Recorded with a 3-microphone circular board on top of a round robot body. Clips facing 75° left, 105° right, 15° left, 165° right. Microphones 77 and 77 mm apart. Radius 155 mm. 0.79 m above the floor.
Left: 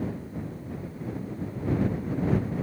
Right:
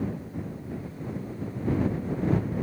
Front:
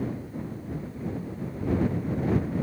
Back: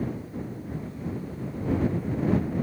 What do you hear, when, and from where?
Only background noise.